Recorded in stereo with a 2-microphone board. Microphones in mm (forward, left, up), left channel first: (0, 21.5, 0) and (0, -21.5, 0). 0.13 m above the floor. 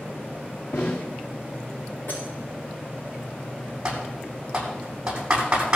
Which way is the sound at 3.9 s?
20° right (ahead or behind).